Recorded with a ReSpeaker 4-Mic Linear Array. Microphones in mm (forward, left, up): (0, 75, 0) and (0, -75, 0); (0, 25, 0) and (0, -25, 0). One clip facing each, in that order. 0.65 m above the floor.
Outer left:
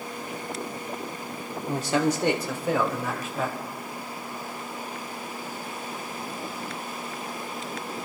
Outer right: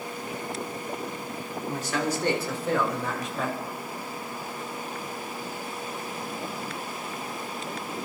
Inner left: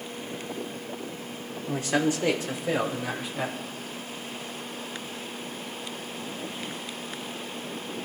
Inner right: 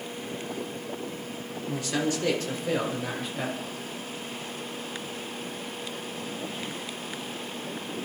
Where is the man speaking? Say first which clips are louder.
Outer left 5 dB, inner left 3 dB; 35° left (ahead or behind), 1.6 m; by 3.6 s centre (ahead or behind), 3 m.